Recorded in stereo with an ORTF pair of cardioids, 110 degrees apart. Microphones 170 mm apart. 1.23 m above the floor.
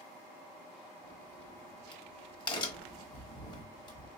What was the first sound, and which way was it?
A crack, 25° left.